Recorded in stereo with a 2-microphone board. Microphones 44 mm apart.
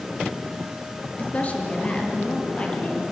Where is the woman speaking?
35° left (ahead or behind), 3 m; by 3.1 s 25° left (ahead or behind), 6 m.